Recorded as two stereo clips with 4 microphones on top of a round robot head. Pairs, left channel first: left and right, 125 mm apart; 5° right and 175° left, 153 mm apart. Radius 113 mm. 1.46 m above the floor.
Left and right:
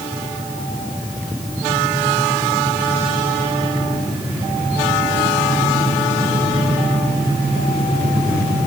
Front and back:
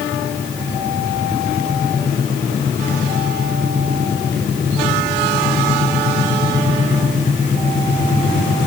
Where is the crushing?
I don't hear crushing.